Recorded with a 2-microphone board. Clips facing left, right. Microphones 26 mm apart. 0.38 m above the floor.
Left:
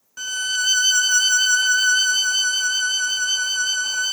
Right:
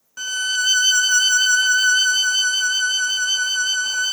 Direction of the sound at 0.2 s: 5° right (ahead or behind).